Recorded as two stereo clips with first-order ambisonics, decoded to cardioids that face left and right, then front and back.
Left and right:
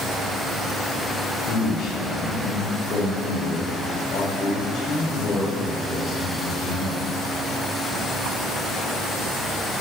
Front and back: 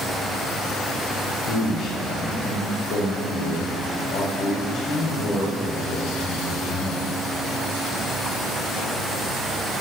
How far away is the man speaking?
About 1.6 m.